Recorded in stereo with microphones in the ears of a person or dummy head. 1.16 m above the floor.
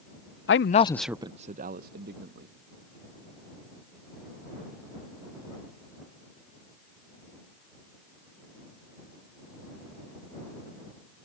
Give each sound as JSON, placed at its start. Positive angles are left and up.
{"t": 0.5, "sound": "a man speaking", "side_deg": 60}